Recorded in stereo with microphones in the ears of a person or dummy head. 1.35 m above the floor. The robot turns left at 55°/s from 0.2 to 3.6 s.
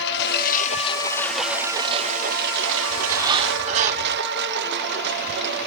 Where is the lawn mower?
65° left; by 5.7 s 120° right.